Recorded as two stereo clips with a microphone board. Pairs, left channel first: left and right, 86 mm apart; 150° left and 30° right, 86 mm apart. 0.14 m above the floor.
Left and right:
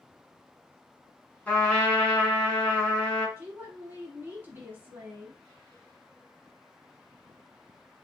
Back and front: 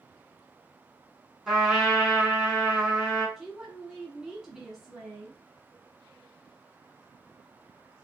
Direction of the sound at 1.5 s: 45° left.